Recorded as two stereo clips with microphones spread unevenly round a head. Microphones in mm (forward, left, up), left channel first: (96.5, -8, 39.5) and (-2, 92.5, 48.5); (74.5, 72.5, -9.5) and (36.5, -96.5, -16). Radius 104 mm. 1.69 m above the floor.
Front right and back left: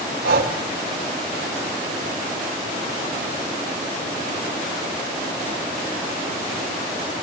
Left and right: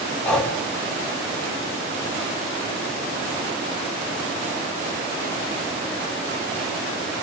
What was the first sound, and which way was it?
Breathing, 160° left.